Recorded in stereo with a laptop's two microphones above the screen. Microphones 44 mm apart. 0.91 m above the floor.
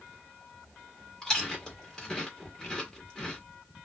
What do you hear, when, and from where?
1.2 s chewing: 15° left (ahead or behind), 1.4 m